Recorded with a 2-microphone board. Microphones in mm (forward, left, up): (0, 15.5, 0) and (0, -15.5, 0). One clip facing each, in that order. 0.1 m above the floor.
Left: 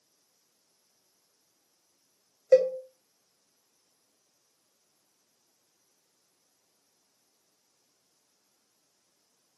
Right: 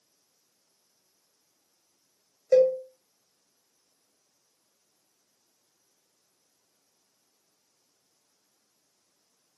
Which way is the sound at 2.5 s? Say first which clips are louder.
Right 1 dB; 25° left (ahead or behind).